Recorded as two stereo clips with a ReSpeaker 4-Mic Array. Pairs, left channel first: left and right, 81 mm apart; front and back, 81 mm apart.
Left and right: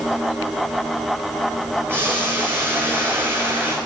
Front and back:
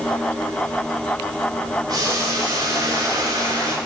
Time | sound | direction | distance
1.9 | boiling | 150° right | 7.5 m